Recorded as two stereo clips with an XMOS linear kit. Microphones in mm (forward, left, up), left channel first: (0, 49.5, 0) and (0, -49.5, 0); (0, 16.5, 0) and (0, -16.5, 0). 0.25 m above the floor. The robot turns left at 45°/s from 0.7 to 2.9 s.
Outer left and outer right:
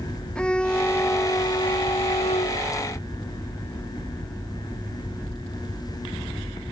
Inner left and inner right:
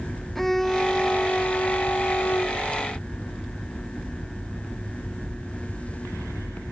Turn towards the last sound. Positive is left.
turn(degrees=70)